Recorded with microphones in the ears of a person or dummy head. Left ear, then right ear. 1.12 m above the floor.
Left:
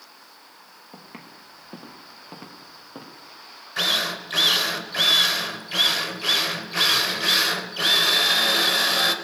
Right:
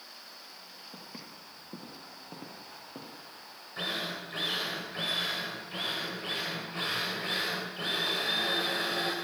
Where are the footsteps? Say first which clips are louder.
Left 3 dB; 55° left (ahead or behind), 5.5 m; by 3.2 s 40° left (ahead or behind), 5.5 m.